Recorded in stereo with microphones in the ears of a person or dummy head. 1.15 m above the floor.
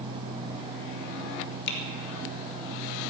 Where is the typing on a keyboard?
65° left (ahead or behind), 3 m.